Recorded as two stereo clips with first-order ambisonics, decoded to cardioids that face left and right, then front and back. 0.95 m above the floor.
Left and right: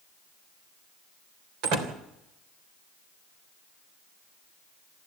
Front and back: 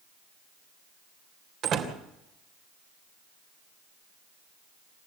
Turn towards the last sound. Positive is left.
turn(degrees=-125)